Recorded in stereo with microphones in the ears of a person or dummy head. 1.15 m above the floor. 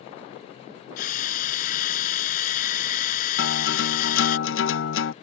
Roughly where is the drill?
Left.